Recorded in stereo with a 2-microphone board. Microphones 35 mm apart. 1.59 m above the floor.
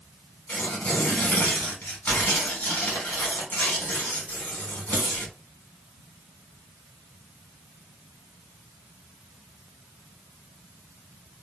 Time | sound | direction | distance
0.5 | tearing paper | 45° left (ahead or behind) | 1.8 m